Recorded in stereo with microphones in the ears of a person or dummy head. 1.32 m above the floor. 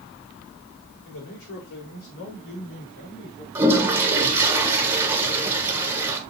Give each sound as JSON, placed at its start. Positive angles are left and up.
{"t": 1.1, "sound": "a man speaking", "side_deg": 75, "distance_m": 4.5}
{"t": 3.5, "sound": "a toilet flushing", "side_deg": -15, "distance_m": 1.3}